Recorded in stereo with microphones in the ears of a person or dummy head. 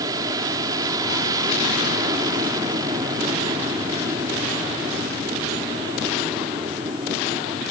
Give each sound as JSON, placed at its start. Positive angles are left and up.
{"t": 0.0, "sound": "an aircraft", "side_deg": -20}